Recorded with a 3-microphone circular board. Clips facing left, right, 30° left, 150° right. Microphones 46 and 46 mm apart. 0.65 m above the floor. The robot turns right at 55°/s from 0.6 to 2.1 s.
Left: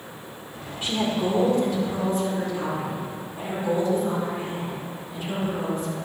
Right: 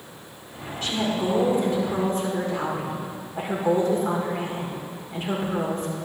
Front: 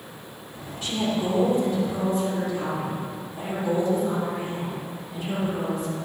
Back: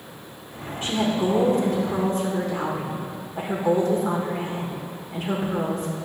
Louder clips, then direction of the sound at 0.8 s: Even, back 3 dB; 155° left.